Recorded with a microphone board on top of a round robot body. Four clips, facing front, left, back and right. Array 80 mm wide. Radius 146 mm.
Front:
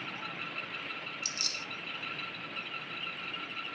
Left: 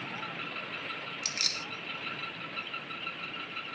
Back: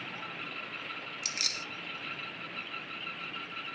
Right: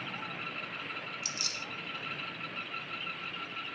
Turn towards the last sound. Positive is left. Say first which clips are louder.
# left 2 dB, back 1 dB
turn(degrees=145)